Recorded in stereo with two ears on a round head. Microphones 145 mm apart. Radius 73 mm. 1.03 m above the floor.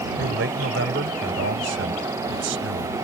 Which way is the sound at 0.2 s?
75° right (ahead or behind).